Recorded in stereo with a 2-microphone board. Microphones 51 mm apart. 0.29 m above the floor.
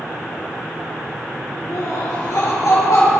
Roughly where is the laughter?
Left.